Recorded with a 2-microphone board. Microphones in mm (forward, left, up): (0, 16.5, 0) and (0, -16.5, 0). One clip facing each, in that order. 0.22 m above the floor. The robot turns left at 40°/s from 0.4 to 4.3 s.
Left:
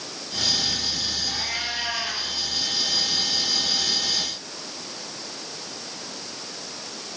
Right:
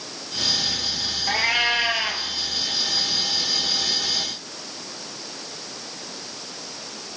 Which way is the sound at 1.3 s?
115° right.